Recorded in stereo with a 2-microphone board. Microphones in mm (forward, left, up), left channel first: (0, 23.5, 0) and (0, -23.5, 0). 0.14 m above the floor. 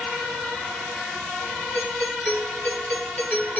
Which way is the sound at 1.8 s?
30° left (ahead or behind).